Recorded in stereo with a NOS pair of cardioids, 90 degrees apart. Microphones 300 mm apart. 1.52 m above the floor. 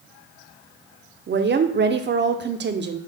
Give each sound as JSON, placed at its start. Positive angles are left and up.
{"t": 1.3, "sound": "a woman speaking", "azimuth_deg": -40, "distance_m": 0.6}